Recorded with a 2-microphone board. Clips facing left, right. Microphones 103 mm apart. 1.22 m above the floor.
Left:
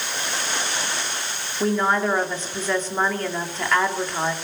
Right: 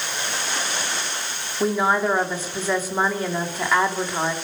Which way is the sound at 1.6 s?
10° right (ahead or behind).